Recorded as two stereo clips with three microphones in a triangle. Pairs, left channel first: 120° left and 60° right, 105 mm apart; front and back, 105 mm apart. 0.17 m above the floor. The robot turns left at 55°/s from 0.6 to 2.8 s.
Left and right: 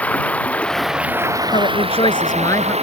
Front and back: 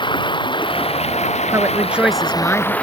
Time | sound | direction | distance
0.0 | running water | 45° left | ?
1.5 | a woman speaking | 125° left | ?